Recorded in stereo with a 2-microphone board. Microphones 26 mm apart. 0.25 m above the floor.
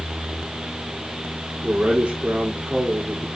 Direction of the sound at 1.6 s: 70° right (ahead or behind).